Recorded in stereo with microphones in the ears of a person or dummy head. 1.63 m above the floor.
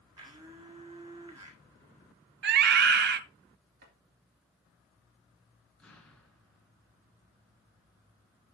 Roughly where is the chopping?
Right.